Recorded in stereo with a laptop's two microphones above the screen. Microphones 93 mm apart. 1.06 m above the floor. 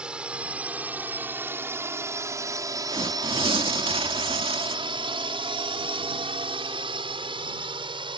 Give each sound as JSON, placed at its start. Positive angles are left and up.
{"t": 0.0, "sound": "a drone", "side_deg": -10}
{"t": 2.9, "sound": "tearing paper", "side_deg": -80}